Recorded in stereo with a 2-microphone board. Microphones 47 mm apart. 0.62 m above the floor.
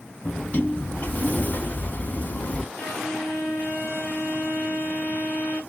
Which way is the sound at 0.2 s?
35° left (ahead or behind).